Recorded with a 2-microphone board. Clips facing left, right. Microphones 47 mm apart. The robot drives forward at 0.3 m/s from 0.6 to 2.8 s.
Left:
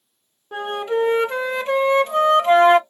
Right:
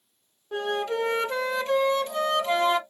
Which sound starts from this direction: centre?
A flute, at 0.5 s.